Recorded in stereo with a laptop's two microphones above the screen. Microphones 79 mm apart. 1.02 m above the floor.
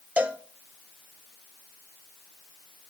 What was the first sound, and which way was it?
A cowbell, 15° right (ahead or behind).